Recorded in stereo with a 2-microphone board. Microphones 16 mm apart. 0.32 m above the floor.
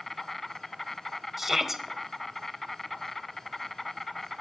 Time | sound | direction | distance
0.0 | an insect | 15° left (ahead or behind) | 0.7 m
1.4 | a shout | 15° right (ahead or behind) | 1.2 m